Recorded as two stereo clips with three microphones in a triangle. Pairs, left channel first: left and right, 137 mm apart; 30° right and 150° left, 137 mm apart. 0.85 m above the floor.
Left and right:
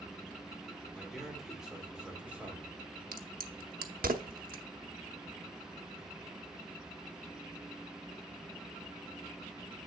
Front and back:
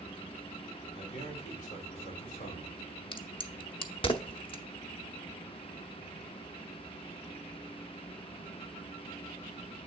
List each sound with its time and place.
0.9 s a man speaking: 5° left, 2.5 m; by 2.8 s 10° right, 3.5 m
3.1 s a crack: 85° right, 0.8 m